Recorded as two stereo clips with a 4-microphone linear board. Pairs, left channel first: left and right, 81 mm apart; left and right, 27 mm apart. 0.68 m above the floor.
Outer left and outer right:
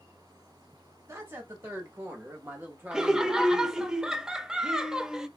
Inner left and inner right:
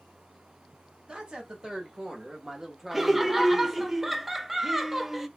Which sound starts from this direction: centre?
Laughter, at 2.9 s.